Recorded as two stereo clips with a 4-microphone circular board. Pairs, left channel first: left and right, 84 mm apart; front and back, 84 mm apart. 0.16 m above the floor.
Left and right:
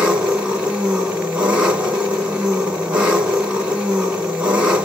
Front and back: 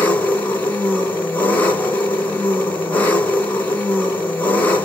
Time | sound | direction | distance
0.0 | an engine running | 30° right | 1.3 m